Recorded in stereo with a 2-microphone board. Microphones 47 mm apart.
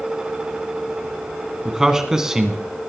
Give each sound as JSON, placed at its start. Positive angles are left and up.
{"t": 1.6, "sound": "a man speaking", "side_deg": -15, "distance_m": 1.8}